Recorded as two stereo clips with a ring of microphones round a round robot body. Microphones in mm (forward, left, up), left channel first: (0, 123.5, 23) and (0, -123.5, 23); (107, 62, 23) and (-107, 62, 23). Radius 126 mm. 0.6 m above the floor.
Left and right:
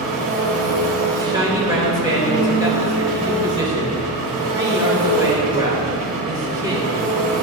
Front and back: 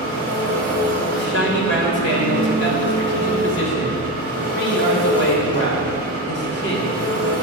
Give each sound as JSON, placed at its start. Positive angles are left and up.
{"t": 0.0, "sound": "an engine running", "azimuth_deg": -75, "distance_m": 2.5}
{"t": 1.1, "sound": "a man speaking", "azimuth_deg": -15, "distance_m": 3.0}